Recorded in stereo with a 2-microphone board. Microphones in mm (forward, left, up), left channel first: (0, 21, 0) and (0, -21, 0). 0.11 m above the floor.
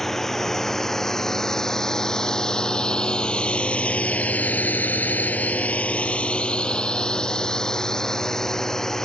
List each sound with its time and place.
0.0 s a drone: 10° left (ahead or behind)